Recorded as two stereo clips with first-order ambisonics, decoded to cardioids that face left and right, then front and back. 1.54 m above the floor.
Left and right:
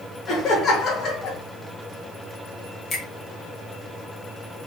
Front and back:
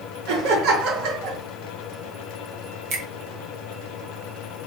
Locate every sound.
0.3 s laughter: 160° left, 1.8 m
2.9 s a finger snap: 160° left, 1.4 m